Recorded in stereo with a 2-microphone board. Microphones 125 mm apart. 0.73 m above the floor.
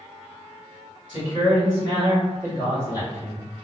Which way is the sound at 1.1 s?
35° left (ahead or behind).